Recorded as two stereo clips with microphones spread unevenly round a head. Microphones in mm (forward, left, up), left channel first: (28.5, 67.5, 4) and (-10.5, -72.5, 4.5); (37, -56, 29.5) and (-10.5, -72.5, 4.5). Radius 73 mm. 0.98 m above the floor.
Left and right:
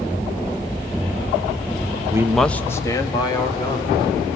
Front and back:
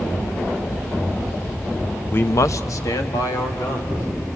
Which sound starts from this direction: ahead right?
A man speaking, at 2.1 s.